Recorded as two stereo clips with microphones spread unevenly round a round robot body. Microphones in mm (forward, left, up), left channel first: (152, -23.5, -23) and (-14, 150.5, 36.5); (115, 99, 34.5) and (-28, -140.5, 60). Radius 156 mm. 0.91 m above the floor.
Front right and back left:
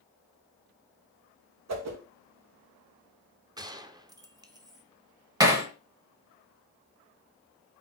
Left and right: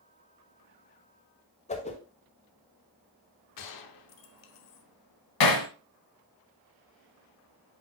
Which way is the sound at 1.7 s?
120° left.